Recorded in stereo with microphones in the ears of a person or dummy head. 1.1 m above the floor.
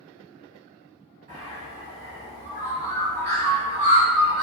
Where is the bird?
40° right (ahead or behind), 1.2 m.